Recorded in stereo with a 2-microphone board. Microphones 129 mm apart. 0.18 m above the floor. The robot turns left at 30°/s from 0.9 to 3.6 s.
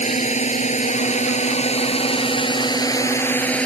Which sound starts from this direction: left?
A drone, at 0.0 s.